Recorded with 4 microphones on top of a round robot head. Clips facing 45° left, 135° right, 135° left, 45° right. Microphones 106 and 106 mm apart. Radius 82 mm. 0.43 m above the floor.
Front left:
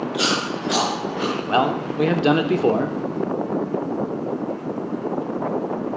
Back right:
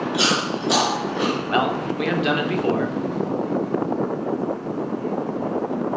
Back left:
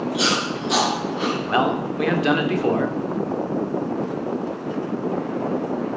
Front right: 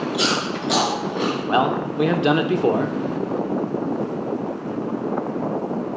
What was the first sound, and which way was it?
Chewing, 75° right.